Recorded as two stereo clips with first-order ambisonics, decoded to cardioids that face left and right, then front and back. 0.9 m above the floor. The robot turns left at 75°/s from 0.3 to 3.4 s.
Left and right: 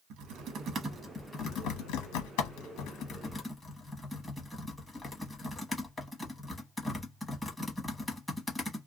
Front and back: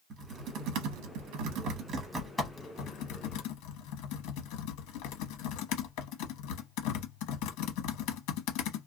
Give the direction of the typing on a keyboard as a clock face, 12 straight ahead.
4 o'clock.